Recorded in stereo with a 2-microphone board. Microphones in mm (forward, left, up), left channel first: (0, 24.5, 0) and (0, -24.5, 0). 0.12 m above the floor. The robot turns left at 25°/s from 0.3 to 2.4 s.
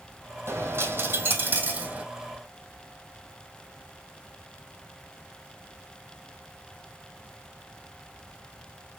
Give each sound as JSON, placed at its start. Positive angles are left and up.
{"t": 0.5, "sound": "a dropped coin", "azimuth_deg": -115, "distance_m": 1.6}